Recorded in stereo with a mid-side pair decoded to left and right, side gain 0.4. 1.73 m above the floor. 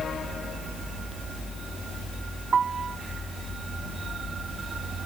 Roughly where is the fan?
Ahead left.